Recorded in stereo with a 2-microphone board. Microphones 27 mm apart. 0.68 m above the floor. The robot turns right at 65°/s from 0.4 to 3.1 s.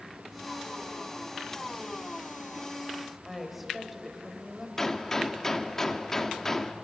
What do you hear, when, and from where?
3.2 s a woman speaking: 5° right (ahead or behind), 3.5 m
4.8 s a gunshot: 20° left (ahead or behind), 1.3 m